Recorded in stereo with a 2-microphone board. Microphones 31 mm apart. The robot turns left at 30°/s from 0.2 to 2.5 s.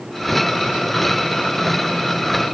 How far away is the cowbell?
I don't hear a cowbell.